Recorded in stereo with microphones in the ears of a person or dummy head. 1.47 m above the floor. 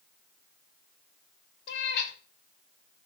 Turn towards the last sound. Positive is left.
turn(degrees=60)  # may be behind; listen again after turning